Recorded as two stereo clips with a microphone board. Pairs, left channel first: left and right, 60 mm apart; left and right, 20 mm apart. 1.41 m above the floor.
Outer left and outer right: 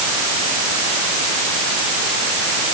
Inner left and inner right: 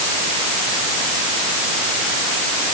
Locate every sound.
Only background noise.